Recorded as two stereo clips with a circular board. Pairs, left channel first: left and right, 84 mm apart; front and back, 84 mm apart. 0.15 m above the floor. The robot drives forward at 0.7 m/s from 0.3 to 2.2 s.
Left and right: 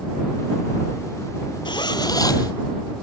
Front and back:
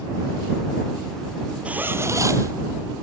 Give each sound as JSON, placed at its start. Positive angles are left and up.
{"t": 1.6, "sound": "a zipper", "azimuth_deg": 105, "distance_m": 0.7}